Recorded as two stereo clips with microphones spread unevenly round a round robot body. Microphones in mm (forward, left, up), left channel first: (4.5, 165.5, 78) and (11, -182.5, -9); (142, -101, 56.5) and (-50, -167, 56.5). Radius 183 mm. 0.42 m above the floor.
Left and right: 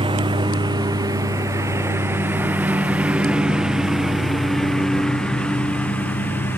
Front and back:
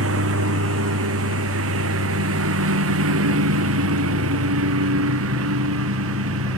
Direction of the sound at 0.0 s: 165° right.